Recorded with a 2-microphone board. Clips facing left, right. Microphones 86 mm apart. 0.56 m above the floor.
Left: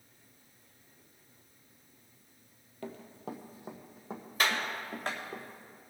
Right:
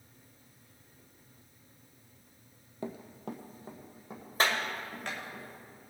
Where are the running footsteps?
20° right (ahead or behind), 0.9 m; by 5.4 s 40° left (ahead or behind), 2.5 m.